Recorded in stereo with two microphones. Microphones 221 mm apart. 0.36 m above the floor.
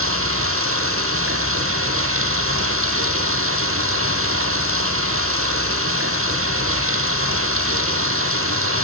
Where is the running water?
75° right (ahead or behind), 3 m.